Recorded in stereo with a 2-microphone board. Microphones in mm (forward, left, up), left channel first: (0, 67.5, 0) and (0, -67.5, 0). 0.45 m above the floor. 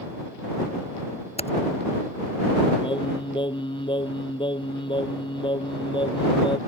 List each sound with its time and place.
1.4 s typing on a keyboard: 50° left (ahead or behind)
2.8 s singing: 40° left (ahead or behind)